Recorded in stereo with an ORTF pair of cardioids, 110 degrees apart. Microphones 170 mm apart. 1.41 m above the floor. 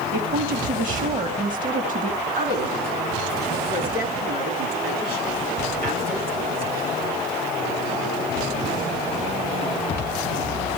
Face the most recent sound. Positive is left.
turn(degrees=-55)